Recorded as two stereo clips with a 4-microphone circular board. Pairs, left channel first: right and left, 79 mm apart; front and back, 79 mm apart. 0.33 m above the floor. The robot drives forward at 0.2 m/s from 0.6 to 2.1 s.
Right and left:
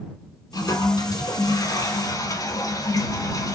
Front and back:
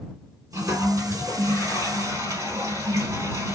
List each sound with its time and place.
0.5 s a toilet flushing: 125° right, 2.5 m; by 3.5 s 135° right, 2.5 m